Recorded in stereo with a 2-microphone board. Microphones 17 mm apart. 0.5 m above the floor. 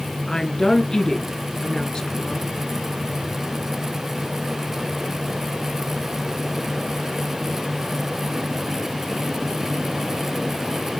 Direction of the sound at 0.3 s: 40° left (ahead or behind).